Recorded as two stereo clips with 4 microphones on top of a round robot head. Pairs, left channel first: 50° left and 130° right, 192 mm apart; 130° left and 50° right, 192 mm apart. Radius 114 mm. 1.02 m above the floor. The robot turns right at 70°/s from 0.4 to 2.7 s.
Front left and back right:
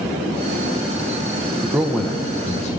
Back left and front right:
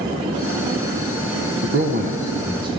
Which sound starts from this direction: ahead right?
A man speaking, at 1.6 s.